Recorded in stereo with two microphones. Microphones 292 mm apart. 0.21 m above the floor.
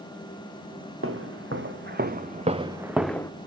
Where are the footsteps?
45° right (ahead or behind), 2 m; by 3.3 s 15° left (ahead or behind), 1.0 m.